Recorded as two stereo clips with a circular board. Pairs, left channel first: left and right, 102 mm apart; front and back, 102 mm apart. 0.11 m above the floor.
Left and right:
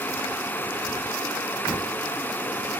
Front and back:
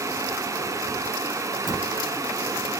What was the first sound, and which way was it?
A dropped coin, 45° left.